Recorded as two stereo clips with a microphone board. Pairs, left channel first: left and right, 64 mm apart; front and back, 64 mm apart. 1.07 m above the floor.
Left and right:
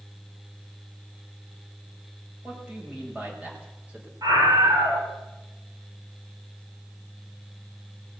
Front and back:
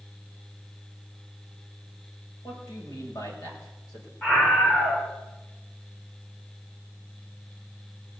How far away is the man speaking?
About 6 m.